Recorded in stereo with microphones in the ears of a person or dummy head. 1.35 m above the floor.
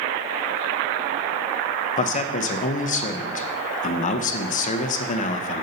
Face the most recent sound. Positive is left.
turn(degrees=40)  # may be behind; listen again after turning